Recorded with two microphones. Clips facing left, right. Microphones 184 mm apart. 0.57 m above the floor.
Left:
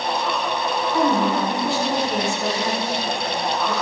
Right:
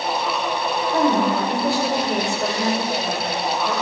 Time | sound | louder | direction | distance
0.9 | a woman speaking | right 1 dB | 70° right (ahead or behind) | 1.9 m